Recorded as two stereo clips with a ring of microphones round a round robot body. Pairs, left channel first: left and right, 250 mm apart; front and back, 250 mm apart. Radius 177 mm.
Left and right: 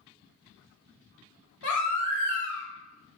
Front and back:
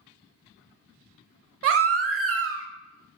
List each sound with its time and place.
1.6 s a baby crying: 135° left, 0.7 m